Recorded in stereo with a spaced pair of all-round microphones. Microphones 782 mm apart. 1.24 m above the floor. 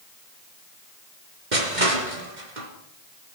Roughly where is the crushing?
Right.